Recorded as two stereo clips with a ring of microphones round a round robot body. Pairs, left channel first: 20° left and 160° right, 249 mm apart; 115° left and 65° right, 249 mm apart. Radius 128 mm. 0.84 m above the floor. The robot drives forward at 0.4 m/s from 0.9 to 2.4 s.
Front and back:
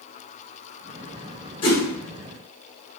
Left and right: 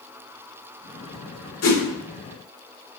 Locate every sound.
1.6 s a whoosh: 95° left, 1.1 m